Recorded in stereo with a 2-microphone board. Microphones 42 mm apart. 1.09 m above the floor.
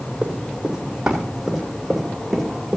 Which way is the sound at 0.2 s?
25° right (ahead or behind).